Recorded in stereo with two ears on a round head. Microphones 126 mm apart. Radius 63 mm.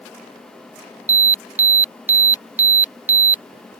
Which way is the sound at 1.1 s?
15° right (ahead or behind).